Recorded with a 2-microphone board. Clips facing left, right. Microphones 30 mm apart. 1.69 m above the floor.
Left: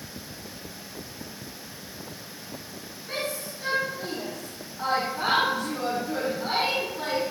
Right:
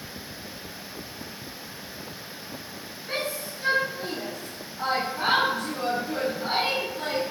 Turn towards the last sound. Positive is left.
turn(degrees=15)  # may be behind; listen again after turning